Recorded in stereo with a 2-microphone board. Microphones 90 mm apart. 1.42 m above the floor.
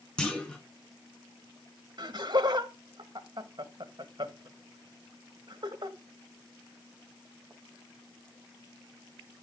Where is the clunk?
10° left (ahead or behind), 3.5 m.